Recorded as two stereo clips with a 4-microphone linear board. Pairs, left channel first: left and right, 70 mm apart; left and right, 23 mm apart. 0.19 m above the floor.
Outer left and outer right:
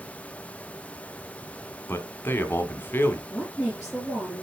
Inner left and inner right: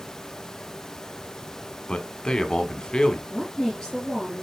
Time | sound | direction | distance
1.9 | a man speaking | 30° left (ahead or behind) | 1.4 m
3.3 | a woman speaking | 25° left (ahead or behind) | 4 m